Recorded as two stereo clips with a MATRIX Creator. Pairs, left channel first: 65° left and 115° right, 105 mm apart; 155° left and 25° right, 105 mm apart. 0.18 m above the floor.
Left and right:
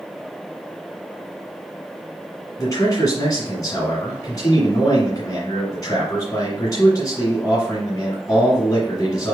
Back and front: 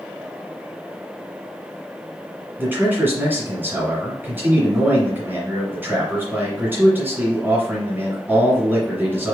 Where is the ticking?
I don't hear ticking.